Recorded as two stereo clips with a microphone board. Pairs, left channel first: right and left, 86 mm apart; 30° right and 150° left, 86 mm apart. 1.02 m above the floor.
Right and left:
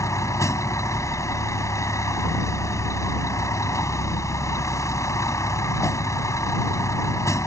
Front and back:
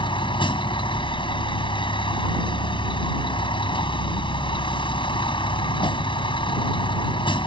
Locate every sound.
0.0 s a vehicle: 35° right